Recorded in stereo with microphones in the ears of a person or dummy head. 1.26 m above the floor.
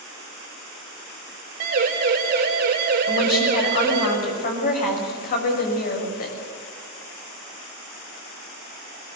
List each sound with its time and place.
1.6 s a siren: 55° right (ahead or behind), 3 m; by 4.1 s 60° right (ahead or behind), 4.5 m
3.1 s a woman speaking: 45° left (ahead or behind), 6.5 m